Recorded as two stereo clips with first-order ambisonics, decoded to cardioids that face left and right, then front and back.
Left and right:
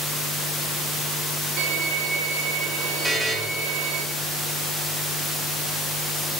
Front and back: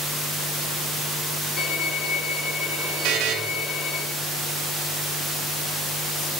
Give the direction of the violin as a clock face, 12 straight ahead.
2 o'clock.